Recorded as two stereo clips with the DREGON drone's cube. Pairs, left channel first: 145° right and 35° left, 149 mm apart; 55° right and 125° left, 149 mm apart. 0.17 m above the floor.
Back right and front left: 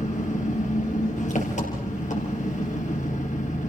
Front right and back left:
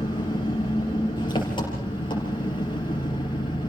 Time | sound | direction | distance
0.0 | an engine running | 115° right | 4.5 m